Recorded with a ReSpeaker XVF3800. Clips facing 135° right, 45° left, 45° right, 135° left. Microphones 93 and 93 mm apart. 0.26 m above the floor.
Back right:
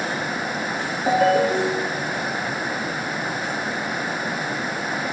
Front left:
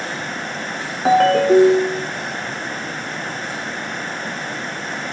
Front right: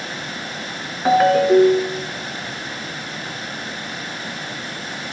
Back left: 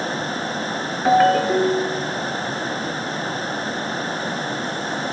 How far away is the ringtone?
About 1.0 m.